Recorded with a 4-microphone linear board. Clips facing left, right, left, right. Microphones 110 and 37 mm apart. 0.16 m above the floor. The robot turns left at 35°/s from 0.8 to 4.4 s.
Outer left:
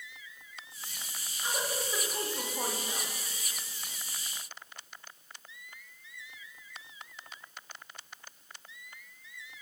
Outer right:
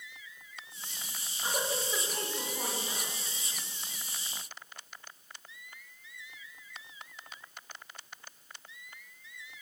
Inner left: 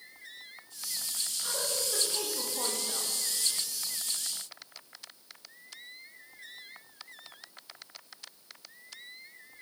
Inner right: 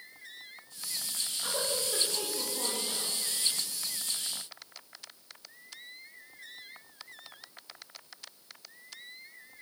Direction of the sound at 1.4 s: 160° right.